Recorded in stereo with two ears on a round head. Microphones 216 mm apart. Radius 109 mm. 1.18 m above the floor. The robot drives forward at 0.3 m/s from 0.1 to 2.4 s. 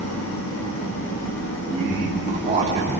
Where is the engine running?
60° left (ahead or behind), 1.7 m; by 3.0 s 45° left (ahead or behind), 2 m.